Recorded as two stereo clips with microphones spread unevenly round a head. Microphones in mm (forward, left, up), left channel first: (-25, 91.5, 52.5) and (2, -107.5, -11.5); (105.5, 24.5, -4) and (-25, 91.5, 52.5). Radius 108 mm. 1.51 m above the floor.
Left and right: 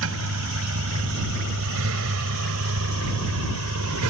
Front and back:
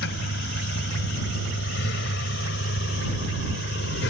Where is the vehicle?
55° right; by 4.1 s 60° right.